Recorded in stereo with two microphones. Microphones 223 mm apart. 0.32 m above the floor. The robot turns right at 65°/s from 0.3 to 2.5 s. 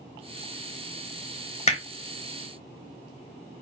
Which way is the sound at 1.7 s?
30° left (ahead or behind).